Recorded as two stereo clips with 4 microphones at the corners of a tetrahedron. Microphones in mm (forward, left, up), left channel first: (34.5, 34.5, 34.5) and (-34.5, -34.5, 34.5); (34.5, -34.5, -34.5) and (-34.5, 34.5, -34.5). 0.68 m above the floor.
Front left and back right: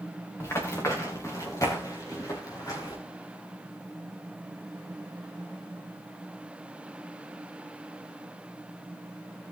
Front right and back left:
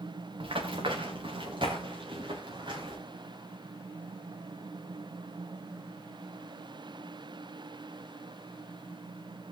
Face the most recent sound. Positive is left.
turn(degrees=95)